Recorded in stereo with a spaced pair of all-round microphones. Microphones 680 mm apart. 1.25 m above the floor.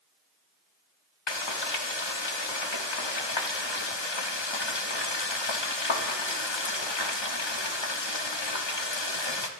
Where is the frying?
40° left (ahead or behind), 0.9 m.